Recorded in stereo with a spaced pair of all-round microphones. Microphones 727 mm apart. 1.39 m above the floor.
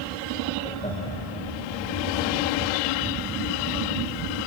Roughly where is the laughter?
Centre.